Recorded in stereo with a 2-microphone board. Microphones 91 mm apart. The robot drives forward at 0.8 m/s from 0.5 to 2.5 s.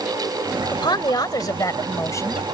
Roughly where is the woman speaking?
Left.